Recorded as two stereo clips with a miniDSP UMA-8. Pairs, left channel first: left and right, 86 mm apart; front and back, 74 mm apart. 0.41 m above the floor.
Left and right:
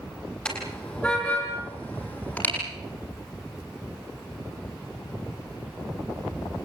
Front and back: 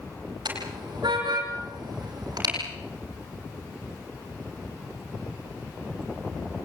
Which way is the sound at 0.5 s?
165° left.